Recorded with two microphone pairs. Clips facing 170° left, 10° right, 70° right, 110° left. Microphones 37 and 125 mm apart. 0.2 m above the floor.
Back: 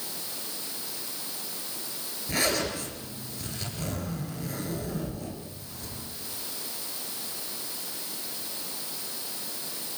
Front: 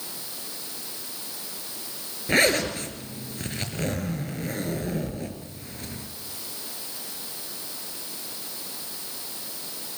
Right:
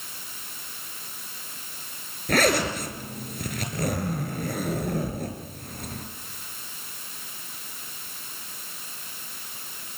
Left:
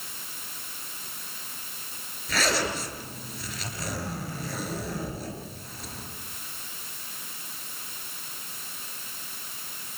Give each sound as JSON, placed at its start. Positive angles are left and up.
{"t": 2.3, "sound": "a zipper", "azimuth_deg": -40, "distance_m": 4.5}